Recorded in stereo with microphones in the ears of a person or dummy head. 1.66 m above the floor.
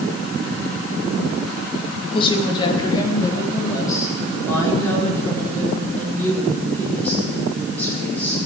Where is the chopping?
No chopping in this recording.